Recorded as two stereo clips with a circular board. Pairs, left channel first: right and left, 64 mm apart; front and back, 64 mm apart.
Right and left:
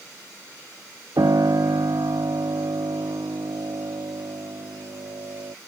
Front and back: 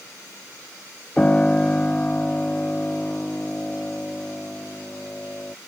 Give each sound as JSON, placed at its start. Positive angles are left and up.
{"t": 1.2, "sound": "a piano", "azimuth_deg": 70}